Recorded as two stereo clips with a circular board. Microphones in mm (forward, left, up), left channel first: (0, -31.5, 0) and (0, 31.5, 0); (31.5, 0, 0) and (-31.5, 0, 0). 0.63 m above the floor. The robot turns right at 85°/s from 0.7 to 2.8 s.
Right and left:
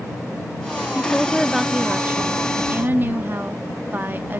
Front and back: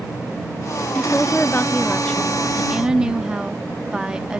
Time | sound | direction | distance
0.9 | a woman speaking | 45° right | ?